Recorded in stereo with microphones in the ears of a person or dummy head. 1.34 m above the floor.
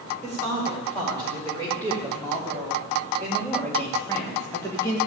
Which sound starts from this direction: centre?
A woman speaking, at 0.2 s.